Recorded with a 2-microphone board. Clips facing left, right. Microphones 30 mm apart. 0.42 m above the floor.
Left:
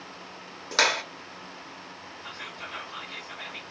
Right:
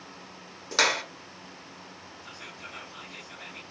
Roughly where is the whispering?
Left.